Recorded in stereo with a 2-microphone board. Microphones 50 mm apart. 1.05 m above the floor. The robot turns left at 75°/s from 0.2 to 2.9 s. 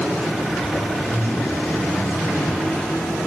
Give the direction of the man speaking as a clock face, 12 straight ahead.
2 o'clock.